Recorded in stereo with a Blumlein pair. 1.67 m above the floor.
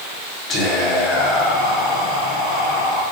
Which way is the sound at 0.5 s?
30° left.